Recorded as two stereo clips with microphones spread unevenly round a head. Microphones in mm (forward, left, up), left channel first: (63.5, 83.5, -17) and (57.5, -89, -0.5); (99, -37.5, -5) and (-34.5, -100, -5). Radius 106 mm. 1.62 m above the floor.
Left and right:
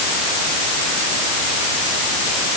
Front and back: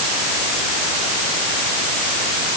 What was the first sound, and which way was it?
Only background noise.